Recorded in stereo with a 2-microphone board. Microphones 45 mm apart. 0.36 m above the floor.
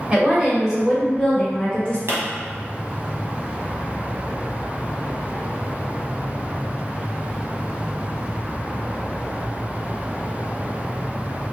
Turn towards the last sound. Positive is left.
turn(degrees=-75)  # may be behind; listen again after turning